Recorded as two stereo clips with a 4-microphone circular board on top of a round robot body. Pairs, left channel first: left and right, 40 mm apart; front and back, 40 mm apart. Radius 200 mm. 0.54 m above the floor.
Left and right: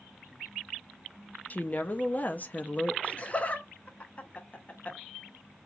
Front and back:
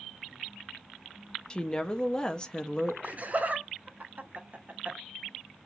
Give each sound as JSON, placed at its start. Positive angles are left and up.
{"t": 1.5, "sound": "a woman speaking", "azimuth_deg": 65, "distance_m": 0.8}
{"t": 3.0, "sound": "laughter", "azimuth_deg": 140, "distance_m": 1.0}